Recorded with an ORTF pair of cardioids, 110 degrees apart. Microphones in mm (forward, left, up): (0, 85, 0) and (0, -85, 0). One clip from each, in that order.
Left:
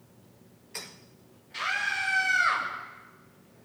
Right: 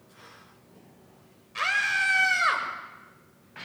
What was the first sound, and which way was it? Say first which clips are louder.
A scream: right 4 dB; 40° right.